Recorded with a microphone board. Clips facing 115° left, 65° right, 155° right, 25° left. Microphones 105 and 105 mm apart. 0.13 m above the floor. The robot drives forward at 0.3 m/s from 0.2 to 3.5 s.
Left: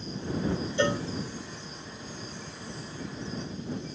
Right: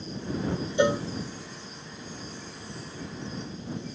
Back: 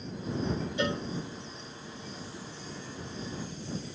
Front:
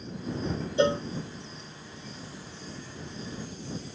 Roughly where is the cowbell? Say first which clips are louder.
Right 4 dB, front 9 dB; ahead.